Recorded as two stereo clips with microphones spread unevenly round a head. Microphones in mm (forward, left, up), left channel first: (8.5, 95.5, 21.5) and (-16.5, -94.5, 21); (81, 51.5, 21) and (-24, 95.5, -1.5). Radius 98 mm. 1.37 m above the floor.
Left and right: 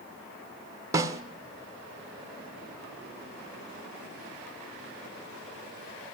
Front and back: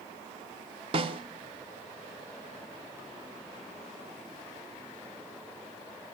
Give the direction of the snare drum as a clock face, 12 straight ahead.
5 o'clock.